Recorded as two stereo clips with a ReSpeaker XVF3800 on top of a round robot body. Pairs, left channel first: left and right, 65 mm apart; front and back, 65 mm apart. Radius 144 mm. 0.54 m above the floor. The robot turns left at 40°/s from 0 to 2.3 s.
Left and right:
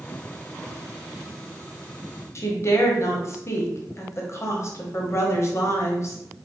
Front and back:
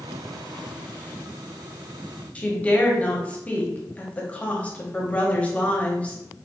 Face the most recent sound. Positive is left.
turn(degrees=65)